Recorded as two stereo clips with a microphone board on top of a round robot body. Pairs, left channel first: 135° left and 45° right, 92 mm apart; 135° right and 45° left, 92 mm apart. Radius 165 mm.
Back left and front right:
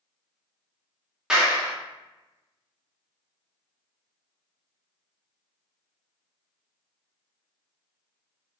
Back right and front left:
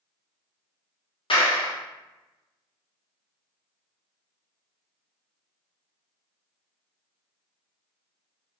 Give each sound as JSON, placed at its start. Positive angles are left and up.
{"t": 1.3, "sound": "a clap", "azimuth_deg": -125, "distance_m": 1.6}